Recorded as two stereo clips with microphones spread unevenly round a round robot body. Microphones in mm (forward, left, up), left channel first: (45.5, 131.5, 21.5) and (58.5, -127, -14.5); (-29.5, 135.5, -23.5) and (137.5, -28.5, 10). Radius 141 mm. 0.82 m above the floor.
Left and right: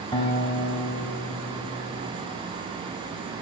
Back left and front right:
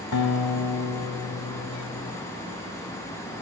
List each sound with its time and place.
0.1 s a guitar: 160° left, 0.9 m